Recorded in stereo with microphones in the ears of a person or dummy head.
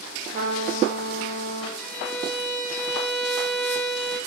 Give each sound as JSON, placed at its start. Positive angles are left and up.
{"t": 0.3, "sound": "a trumpet", "side_deg": -55, "distance_m": 2.5}
{"t": 1.8, "sound": "a violin", "side_deg": -5, "distance_m": 3.5}